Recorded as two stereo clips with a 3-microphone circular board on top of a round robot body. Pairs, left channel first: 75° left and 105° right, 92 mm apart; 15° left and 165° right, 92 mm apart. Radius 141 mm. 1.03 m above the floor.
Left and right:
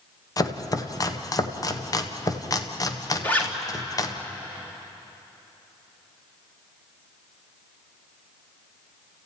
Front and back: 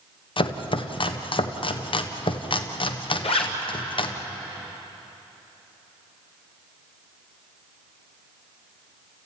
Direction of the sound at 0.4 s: 25° left.